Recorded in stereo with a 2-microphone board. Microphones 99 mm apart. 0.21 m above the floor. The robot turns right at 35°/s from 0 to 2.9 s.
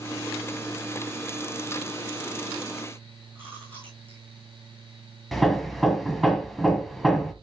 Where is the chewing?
20° right (ahead or behind), 8 m.